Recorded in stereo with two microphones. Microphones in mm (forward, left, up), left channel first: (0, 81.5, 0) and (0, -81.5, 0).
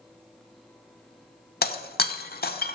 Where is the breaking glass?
70° left (ahead or behind), 0.6 m.